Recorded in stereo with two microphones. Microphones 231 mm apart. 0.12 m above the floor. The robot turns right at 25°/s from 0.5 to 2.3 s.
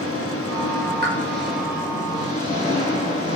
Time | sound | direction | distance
0.0 | an engine running | 105° left | 8.5 m
1.0 | a pop | 45° right (ahead or behind) | 3.5 m